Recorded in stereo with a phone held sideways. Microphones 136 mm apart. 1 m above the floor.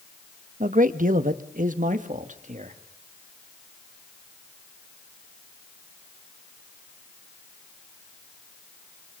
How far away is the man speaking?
About 1.2 m.